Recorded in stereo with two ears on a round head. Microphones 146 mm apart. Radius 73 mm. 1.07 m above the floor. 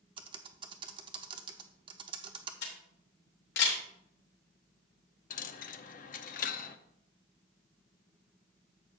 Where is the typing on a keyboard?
30° right (ahead or behind), 0.7 m.